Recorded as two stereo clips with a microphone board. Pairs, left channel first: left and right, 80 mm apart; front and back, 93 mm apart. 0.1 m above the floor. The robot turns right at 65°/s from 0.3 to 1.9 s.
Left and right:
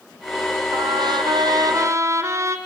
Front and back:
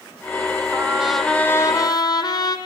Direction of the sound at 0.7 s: 115° right.